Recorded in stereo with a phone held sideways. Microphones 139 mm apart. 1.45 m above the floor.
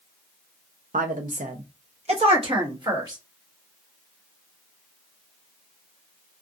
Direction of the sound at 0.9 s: 70° right (ahead or behind).